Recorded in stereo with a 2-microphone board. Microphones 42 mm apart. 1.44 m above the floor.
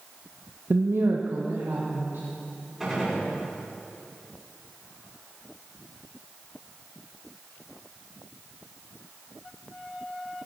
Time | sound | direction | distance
0.7 | a woman speaking | 65° right (ahead or behind) | 0.5 m
2.8 | a gunshot | 5° right (ahead or behind) | 5.5 m